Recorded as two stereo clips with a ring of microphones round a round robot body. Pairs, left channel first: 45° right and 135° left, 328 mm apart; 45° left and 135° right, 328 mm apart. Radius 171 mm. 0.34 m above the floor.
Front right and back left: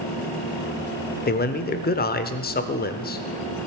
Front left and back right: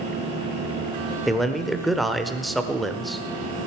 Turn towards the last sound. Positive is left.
turn(degrees=-45)